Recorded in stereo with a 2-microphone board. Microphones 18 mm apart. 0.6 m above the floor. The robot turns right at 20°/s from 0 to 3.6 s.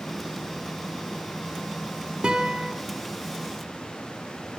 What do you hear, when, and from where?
2.2 s a guitar: 55° right (ahead or behind), 1.1 m; by 2.7 s 45° right (ahead or behind), 1.1 m